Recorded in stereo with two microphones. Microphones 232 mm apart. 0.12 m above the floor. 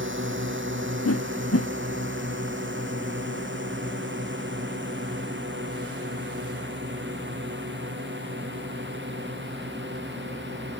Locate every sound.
0.0 s a drone: 55° right (ahead or behind); by 10.8 s 50° right (ahead or behind)
1.1 s a whoosh: 80° left